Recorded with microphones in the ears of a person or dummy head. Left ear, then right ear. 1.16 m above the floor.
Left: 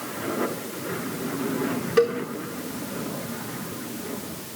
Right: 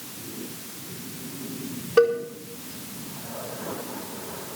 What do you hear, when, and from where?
2.0 s a cowbell: 25° left (ahead or behind), 5 m